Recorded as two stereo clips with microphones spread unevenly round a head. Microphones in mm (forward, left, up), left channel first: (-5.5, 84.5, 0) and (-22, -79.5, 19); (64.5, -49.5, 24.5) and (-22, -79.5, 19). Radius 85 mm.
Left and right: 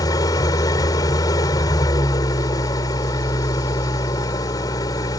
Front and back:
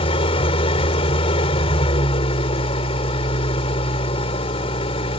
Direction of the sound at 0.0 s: 15° left.